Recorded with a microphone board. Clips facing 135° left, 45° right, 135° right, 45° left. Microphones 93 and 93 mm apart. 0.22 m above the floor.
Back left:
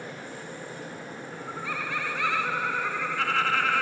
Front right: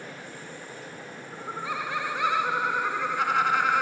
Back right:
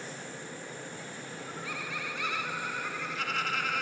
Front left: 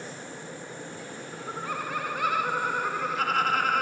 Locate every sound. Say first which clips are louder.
1.3 s laughter: front right 3 dB, front left 8 dB; 20° left